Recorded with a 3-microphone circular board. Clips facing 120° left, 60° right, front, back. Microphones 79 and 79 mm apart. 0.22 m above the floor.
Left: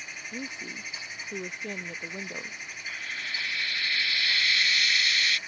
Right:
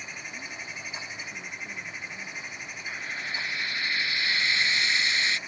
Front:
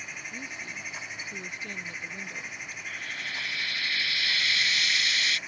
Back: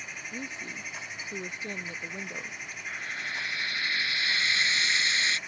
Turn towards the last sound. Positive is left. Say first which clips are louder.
# right 2 dB, back 2 dB
turn(degrees=-120)